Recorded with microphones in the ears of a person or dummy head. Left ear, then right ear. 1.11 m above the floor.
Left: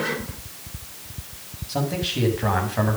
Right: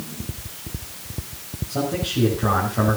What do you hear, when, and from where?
1.7 s a man speaking: 60° left (ahead or behind), 7 m